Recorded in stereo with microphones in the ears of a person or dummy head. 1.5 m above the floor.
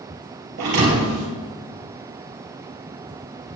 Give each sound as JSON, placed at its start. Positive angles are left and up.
{"t": 0.6, "sound": "a thud", "side_deg": -50, "distance_m": 2.5}